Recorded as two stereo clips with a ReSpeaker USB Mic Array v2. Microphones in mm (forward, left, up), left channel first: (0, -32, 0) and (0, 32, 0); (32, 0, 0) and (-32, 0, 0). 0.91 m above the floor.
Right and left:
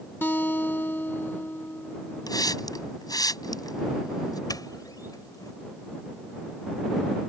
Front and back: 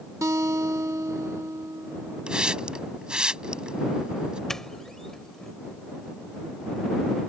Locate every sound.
0.2 s a guitar: 145° right
2.3 s a hiss: 100° right
4.5 s a doorbell: 80° right